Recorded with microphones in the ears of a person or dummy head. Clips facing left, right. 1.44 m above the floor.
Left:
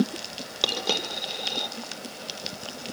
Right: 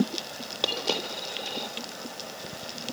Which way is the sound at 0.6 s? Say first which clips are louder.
Even; 20° left (ahead or behind).